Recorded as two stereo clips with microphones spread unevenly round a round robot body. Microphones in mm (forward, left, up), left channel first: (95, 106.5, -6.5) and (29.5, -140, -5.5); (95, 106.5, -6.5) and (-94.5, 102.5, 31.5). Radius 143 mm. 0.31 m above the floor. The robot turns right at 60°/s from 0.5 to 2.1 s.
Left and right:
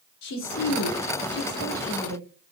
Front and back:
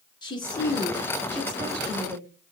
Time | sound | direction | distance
0.2 | a woman speaking | 65° left | 3 m